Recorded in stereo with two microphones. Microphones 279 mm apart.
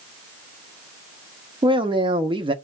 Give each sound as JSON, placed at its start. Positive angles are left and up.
{"t": 1.6, "sound": "a man speaking", "side_deg": -20, "distance_m": 0.5}